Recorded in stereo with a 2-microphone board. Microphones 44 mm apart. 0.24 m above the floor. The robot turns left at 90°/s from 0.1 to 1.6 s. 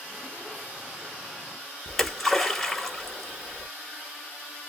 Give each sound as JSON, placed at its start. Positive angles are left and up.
{"t": 1.9, "sound": "a splash", "side_deg": 0, "distance_m": 1.2}